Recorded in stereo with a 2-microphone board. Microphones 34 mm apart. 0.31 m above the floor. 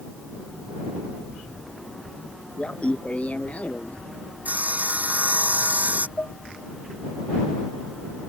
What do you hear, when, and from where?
2.6 s laughter: 40° left (ahead or behind); by 4.0 s 50° left (ahead or behind)
4.5 s sawing: 50° right (ahead or behind)
6.2 s dishes clattering: 75° left (ahead or behind)